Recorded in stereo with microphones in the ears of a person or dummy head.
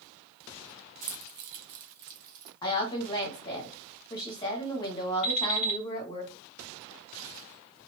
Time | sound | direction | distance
1.0 | keys jangling | 35° right (ahead or behind) | 0.7 m
2.6 | a woman speaking | 25° left (ahead or behind) | 1.4 m
5.2 | an alarm clock | 35° left (ahead or behind) | 1.2 m